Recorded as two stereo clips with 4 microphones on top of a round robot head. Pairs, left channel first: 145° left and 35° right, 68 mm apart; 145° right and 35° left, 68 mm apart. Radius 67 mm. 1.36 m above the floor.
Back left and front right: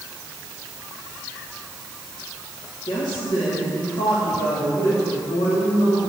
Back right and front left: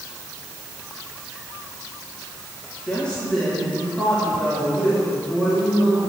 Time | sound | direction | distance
2.9 | a woman speaking | 140° left | 3.5 m